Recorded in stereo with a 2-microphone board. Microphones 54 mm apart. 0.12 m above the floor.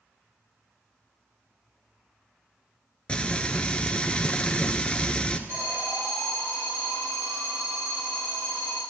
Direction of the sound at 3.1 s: 20° left (ahead or behind).